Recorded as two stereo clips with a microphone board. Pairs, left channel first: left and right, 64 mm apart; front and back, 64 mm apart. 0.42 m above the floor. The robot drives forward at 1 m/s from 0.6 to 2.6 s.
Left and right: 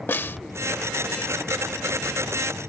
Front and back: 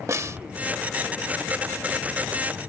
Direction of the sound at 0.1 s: 145° left.